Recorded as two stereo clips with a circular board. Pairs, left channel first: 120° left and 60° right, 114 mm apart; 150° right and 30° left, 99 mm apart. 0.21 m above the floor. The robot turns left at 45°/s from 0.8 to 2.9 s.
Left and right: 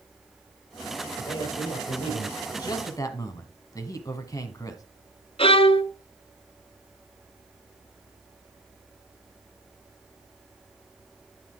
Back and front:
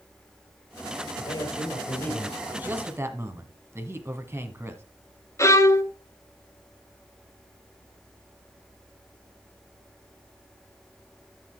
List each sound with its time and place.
1.2 s a man speaking: 175° left, 5 m; by 2.4 s 120° left, 5 m
2.5 s a man speaking: 95° left, 1.6 m; by 4.8 s 80° left, 1.6 m
5.4 s a violin: 150° left, 0.7 m